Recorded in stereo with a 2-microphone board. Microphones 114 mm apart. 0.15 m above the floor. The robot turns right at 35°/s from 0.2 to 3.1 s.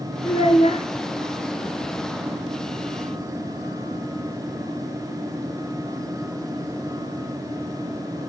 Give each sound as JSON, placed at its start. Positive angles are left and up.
{"t": 0.2, "sound": "a child speaking", "side_deg": 55, "distance_m": 1.7}